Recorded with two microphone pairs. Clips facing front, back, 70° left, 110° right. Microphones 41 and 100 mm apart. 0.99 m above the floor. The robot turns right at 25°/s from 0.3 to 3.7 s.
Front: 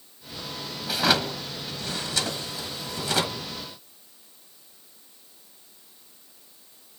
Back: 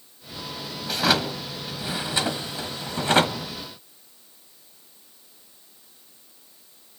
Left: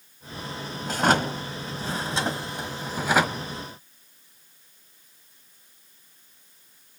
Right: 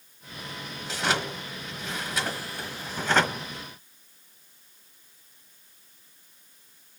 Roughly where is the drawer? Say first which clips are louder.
Back 1 dB, left 6 dB; left.